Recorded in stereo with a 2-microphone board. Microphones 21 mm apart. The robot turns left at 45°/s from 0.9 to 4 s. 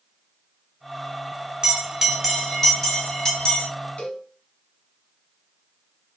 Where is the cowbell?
80° left, 4 m.